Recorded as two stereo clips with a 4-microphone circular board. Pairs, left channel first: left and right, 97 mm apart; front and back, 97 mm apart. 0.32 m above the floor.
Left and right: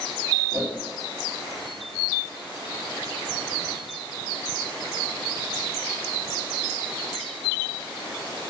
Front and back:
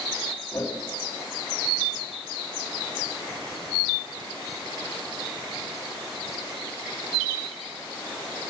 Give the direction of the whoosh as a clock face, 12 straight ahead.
2 o'clock.